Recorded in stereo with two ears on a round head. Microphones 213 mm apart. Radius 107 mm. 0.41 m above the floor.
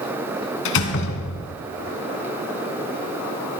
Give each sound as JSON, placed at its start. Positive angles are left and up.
{"t": 0.7, "sound": "a door slam", "side_deg": 55, "distance_m": 2.5}